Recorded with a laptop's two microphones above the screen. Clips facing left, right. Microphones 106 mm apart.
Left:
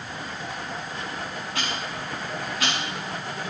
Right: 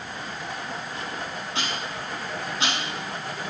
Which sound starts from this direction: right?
Ticking, at 1.6 s.